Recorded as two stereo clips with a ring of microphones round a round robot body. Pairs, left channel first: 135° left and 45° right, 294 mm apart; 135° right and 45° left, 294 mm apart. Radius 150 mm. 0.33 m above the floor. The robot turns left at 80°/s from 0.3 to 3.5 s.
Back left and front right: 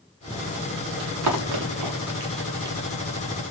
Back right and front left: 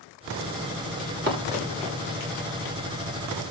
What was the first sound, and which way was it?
Running footsteps, 10° left.